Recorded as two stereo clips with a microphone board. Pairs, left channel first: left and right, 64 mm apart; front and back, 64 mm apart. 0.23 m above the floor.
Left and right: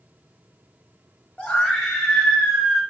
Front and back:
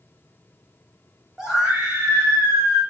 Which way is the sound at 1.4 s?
120° left.